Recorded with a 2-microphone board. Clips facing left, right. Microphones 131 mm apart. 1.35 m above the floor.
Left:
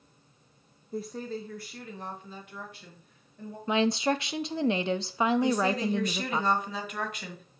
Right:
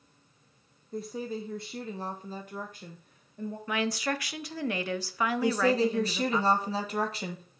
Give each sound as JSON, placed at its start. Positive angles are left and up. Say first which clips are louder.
{"t": 0.9, "sound": "a woman speaking", "louder": "even", "side_deg": 5, "distance_m": 0.6}
{"t": 3.7, "sound": "a woman speaking", "louder": "left 6 dB", "side_deg": 25, "distance_m": 0.6}
{"t": 5.4, "sound": "a woman speaking", "louder": "right 1 dB", "side_deg": -35, "distance_m": 1.4}